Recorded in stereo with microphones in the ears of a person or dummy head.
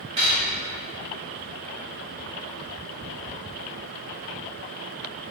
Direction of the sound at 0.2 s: 30° right (ahead or behind).